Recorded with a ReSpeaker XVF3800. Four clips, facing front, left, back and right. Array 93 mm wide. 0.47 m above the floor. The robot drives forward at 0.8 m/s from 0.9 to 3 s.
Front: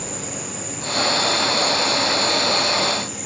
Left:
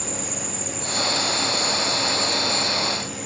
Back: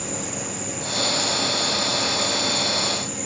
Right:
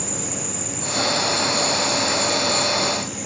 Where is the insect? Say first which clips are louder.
Right 1 dB, back 1 dB; 120° right, 0.8 m; by 3.3 s 170° right, 2 m.